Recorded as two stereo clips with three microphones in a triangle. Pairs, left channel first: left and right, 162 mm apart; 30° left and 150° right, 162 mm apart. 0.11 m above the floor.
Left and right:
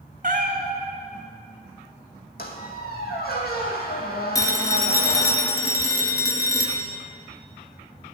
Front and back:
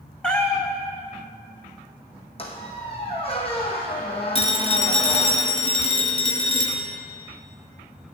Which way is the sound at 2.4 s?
80° left.